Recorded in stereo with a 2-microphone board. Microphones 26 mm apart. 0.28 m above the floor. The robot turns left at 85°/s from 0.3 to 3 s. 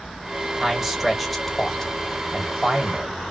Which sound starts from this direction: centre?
A man speaking, at 0.6 s.